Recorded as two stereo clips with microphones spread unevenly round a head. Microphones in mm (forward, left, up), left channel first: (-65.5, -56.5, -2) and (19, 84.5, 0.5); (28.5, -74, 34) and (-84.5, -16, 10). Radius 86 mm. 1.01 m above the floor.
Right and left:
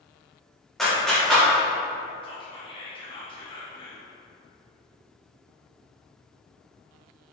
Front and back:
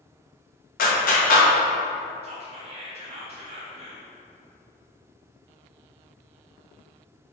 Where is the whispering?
Straight behind, 1.5 m.